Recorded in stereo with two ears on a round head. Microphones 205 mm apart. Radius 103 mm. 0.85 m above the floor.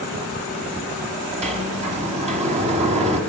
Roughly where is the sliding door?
Right.